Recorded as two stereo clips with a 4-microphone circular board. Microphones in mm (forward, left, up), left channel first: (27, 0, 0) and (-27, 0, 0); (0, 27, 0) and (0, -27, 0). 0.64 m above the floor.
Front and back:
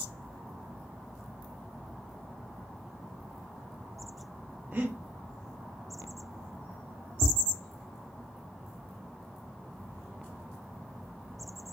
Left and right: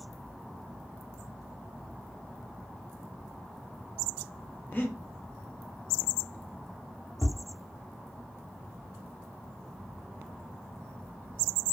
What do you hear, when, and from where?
4.7 s breathing: 135° left, 0.6 m
7.2 s tapping: 40° left, 0.9 m